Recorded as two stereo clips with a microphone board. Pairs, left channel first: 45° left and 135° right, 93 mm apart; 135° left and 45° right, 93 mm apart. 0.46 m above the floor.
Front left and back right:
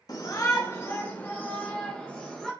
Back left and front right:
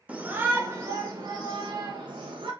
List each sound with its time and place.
0.1 s a shout: 25° left, 1.1 m; by 2.5 s 40° right, 1.6 m